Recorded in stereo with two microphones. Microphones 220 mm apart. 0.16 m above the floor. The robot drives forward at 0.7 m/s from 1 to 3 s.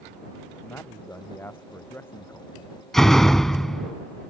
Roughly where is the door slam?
Centre.